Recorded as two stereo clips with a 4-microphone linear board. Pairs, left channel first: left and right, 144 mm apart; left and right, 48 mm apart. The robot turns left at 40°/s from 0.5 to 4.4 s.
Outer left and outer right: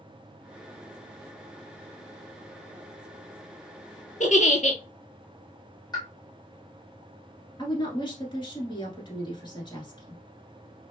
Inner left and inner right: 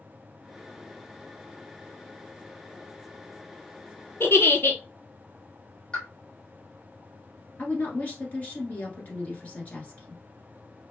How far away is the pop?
About 1.4 m.